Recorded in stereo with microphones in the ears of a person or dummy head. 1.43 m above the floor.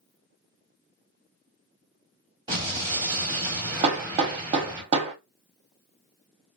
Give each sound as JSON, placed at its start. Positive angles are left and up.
{"t": 2.5, "sound": "an explosion", "side_deg": -25, "distance_m": 1.5}
{"t": 3.8, "sound": "hammering", "side_deg": -35, "distance_m": 0.6}